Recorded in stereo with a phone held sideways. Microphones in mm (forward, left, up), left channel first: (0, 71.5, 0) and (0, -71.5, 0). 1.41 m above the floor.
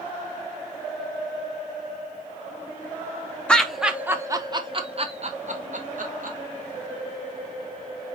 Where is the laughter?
10° left (ahead or behind), 0.9 m; by 6.4 s 65° right (ahead or behind), 1.5 m.